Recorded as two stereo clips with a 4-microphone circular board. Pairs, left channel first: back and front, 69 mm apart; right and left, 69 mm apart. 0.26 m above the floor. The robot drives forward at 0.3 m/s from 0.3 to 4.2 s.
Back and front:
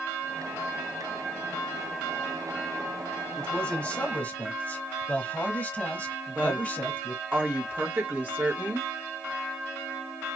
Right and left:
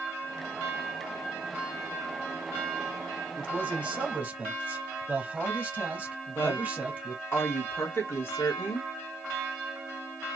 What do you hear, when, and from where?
3.4 s a man speaking: 120° left, 0.9 m; by 7.2 s 140° left, 1.0 m
6.3 s a woman speaking: 55° right, 1.8 m